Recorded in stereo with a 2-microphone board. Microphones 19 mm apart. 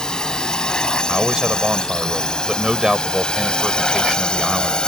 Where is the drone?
45° left (ahead or behind); by 4.9 s 55° left (ahead or behind).